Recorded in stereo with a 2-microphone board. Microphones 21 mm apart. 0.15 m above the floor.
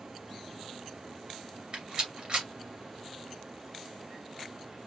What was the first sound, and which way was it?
A rattle, 45° right (ahead or behind).